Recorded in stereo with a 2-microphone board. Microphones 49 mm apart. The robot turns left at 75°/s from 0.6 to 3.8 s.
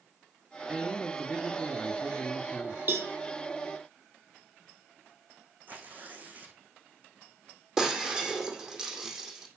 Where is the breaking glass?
15° right (ahead or behind), 3.5 m.